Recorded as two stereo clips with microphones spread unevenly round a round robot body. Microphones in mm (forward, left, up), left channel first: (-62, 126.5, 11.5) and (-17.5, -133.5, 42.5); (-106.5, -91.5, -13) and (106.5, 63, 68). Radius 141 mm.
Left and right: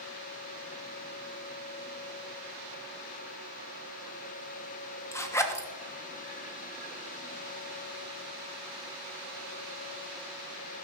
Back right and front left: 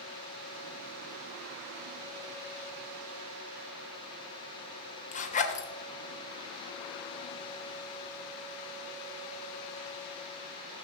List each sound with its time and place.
5.1 s a zipper: 175° left, 1.3 m